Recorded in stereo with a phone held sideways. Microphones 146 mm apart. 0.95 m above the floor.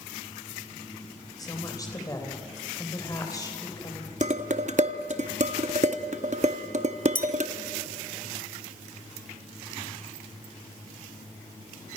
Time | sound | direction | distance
1.4 | a woman speaking | 25° left (ahead or behind) | 3.5 m
4.2 | dishes clattering | 55° right (ahead or behind) | 0.9 m
7.2 | a clink | 70° left (ahead or behind) | 1.0 m